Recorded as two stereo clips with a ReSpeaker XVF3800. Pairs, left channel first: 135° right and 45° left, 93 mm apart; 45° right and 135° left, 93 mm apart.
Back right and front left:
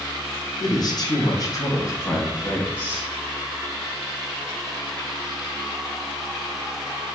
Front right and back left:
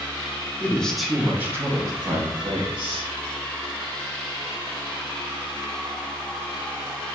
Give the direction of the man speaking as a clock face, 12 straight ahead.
4 o'clock.